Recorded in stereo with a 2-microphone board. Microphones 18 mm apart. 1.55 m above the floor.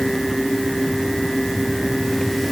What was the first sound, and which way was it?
Only background noise.